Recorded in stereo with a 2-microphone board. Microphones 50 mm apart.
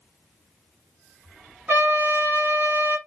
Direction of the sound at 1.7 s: 40° right (ahead or behind).